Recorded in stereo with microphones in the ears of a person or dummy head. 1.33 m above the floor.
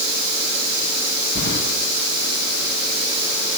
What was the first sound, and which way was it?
Keys jangling, 60° left (ahead or behind).